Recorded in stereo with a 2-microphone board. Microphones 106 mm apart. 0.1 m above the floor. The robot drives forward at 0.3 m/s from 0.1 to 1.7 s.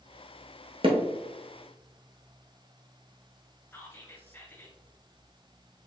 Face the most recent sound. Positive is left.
turn(degrees=20)  # may be behind; listen again after turning